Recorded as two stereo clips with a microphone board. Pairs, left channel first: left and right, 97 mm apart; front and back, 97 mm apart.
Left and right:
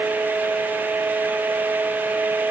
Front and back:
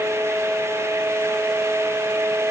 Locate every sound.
Only background noise.